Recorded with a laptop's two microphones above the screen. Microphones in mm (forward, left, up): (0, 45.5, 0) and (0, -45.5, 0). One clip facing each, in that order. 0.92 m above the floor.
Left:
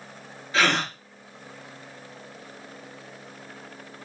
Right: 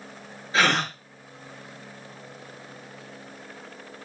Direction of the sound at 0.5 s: 25° right (ahead or behind).